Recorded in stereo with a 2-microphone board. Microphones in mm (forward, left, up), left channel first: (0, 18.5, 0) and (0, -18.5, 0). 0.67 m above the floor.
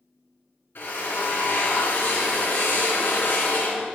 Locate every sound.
0.8 s a drill: 70° left (ahead or behind), 1.4 m